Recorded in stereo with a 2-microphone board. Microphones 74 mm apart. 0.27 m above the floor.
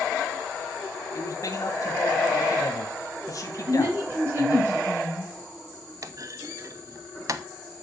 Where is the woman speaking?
35° right (ahead or behind), 3 m.